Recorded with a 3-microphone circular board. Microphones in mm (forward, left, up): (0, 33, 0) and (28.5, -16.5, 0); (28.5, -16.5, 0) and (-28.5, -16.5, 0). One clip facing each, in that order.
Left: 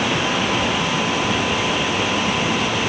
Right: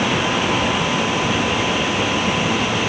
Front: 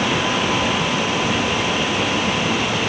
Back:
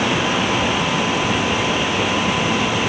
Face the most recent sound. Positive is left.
No sound to turn to.